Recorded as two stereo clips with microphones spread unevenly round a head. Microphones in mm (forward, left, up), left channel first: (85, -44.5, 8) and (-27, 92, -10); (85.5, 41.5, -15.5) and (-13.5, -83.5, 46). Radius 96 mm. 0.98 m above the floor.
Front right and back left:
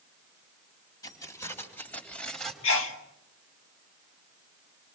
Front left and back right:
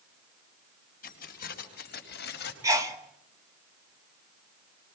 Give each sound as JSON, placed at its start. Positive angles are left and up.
{"t": 1.0, "sound": "keys jangling", "azimuth_deg": 20, "distance_m": 5.0}
{"t": 2.6, "sound": "a sneeze", "azimuth_deg": -55, "distance_m": 2.0}